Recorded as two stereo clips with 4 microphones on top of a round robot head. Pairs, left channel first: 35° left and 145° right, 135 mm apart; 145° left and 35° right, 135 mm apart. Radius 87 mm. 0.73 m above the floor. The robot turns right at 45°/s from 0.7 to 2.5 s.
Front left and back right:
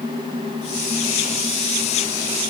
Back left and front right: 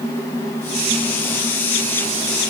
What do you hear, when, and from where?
Only background noise.